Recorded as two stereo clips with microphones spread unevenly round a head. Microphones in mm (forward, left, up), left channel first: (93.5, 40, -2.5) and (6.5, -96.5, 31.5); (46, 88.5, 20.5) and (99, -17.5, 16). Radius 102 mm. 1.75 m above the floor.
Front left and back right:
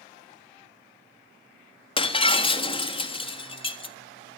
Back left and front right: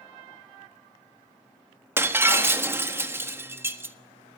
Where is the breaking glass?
Straight ahead, 1.4 m.